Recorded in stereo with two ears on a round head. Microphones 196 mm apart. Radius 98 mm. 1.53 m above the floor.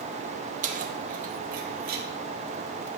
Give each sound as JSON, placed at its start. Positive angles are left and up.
{"t": 0.6, "sound": "keys jangling", "side_deg": -35, "distance_m": 1.6}